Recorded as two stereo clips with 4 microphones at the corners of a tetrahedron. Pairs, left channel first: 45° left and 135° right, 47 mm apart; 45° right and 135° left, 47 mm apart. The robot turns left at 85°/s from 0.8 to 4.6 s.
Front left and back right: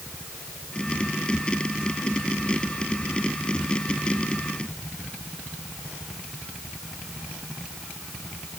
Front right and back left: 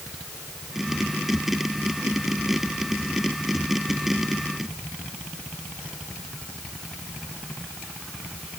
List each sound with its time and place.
Only background noise.